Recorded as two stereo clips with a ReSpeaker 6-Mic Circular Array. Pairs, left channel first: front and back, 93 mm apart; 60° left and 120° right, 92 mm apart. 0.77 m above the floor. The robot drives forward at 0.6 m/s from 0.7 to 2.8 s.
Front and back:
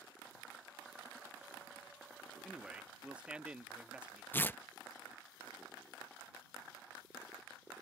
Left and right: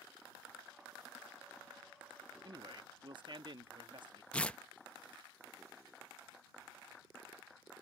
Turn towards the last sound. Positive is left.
turn(degrees=10)